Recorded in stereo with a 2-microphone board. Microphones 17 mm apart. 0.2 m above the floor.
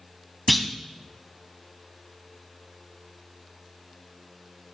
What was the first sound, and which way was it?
A clunk, centre (ahead or behind).